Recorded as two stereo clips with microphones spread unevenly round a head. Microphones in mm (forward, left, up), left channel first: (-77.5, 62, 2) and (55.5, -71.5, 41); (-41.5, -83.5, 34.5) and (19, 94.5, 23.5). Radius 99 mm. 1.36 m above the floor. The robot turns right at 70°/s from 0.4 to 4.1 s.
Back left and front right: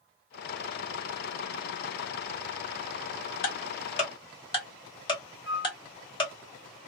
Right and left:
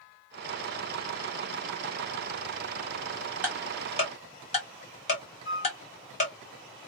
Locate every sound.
3.4 s ticking: 150° left, 1.6 m; by 6.3 s 160° right, 1.6 m
5.5 s a flute: 165° left, 1.9 m